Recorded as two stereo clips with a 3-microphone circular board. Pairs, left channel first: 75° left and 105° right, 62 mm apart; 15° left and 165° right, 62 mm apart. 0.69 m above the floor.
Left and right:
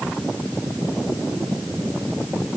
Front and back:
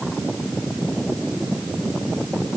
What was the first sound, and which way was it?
Only background noise.